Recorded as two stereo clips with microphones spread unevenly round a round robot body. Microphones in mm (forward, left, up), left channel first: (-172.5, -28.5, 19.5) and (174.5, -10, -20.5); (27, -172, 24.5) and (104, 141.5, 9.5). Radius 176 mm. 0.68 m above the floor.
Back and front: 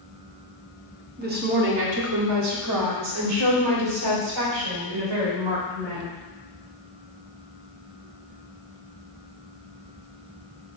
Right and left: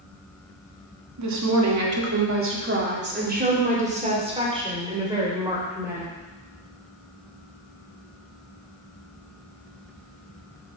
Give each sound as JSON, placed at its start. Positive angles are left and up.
{"t": 1.2, "sound": "a woman speaking", "azimuth_deg": 60, "distance_m": 1.7}